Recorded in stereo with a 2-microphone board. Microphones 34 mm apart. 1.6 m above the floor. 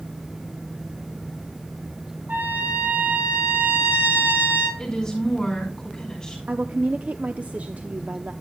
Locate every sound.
2.3 s a trumpet: 85° right, 3.5 m
4.8 s a woman speaking: 25° left (ahead or behind), 5 m
6.5 s a woman speaking: 50° right (ahead or behind), 0.6 m